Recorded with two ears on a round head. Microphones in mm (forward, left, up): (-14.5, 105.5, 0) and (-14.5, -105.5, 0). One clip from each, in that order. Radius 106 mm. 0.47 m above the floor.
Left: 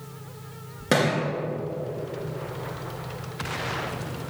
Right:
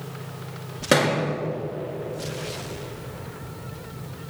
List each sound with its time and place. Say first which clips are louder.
0.9 s a thud: right 3 dB; 15° right (ahead or behind), 1.6 m